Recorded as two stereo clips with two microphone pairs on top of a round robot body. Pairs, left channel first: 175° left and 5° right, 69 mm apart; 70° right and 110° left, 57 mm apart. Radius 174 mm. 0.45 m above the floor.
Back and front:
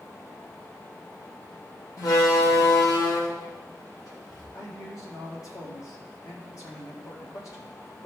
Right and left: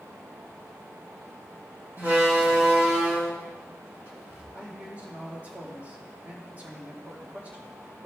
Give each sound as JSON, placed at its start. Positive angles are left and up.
{"t": 2.0, "sound": "a door slam", "azimuth_deg": 155, "distance_m": 3.0}
{"t": 4.5, "sound": "a man speaking", "azimuth_deg": 165, "distance_m": 3.5}